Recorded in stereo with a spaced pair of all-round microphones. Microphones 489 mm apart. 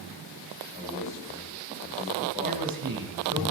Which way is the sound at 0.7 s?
5° right (ahead or behind).